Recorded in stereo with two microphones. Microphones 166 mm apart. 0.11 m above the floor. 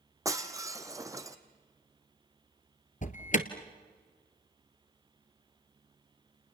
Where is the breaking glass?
20° right (ahead or behind), 1.3 m.